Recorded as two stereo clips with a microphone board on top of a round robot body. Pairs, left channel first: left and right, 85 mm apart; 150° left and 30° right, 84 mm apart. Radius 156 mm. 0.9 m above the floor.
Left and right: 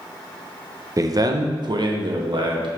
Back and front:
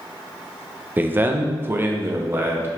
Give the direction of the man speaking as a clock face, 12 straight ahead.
3 o'clock.